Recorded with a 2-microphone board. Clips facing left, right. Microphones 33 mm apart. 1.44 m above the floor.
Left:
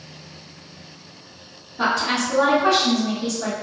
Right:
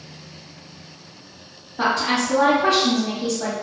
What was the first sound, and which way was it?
A woman speaking, 45° right (ahead or behind).